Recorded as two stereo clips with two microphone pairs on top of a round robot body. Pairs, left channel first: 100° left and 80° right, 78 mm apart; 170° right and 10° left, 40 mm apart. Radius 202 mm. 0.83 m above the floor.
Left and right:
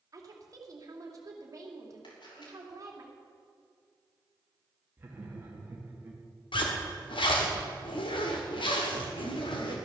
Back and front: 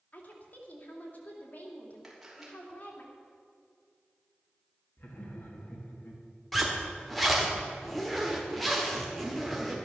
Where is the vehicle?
No vehicle in this recording.